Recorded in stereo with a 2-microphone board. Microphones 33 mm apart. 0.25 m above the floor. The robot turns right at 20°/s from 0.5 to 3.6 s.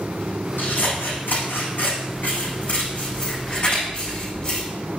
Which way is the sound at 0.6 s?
85° left.